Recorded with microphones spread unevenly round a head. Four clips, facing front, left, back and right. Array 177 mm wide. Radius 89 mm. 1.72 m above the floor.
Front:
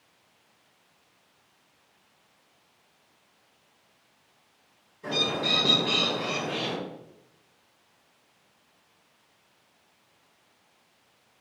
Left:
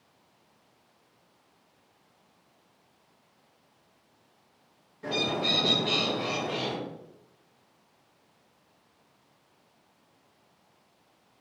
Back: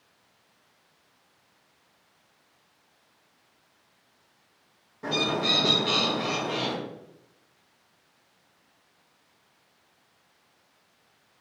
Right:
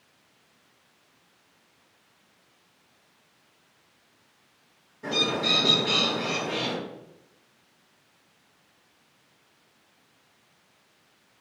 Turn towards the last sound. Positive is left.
turn(degrees=180)